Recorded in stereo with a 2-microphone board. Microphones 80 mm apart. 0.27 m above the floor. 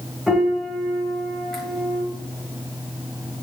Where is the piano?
Centre (ahead or behind), 1.0 m.